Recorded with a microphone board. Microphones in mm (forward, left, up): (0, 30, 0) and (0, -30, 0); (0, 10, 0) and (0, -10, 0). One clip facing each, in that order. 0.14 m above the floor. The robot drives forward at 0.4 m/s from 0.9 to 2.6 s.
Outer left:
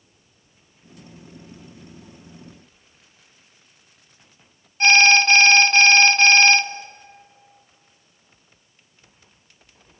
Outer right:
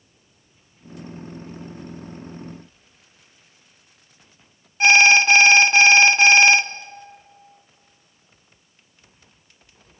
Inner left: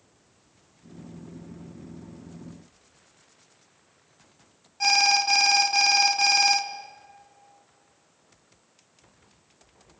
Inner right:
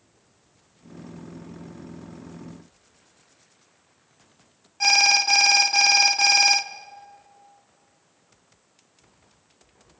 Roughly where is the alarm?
Centre.